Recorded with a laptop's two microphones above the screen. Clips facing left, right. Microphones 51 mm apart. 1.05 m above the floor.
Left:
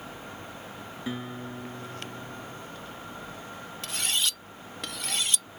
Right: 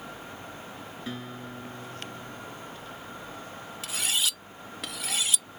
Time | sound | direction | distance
1.1 | a guitar | 10° left (ahead or behind) | ?
3.8 | cutlery clinking | 5° right (ahead or behind) | ?